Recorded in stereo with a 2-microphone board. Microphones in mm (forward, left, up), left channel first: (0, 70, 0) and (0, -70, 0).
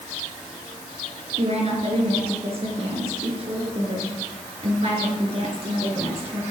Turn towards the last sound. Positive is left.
turn(degrees=-45)  # may be behind; listen again after turning